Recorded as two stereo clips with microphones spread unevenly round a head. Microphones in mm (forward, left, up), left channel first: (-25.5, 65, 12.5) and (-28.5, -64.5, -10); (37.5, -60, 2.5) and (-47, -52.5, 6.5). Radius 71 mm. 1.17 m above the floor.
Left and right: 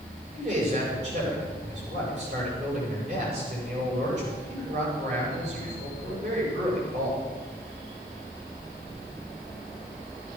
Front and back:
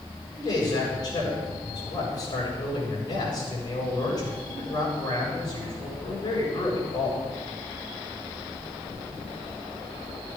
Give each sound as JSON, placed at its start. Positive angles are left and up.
{"t": 0.3, "sound": "a man speaking", "azimuth_deg": -45, "distance_m": 7.0}